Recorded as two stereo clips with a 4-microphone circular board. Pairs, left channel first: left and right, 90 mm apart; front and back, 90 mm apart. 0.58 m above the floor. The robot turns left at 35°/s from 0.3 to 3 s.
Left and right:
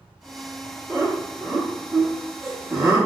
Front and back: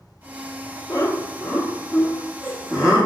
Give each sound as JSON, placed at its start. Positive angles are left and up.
{"t": 0.9, "sound": "laughter", "azimuth_deg": -20, "distance_m": 0.8}